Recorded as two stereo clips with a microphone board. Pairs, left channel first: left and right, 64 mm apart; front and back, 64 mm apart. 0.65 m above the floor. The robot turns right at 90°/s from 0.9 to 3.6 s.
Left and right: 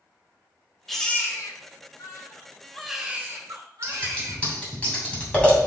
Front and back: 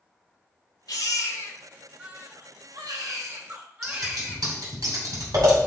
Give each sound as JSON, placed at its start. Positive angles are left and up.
{"t": 0.9, "sound": "a baby crying", "azimuth_deg": 5, "distance_m": 1.9}
{"t": 3.8, "sound": "scissors", "azimuth_deg": 160, "distance_m": 3.0}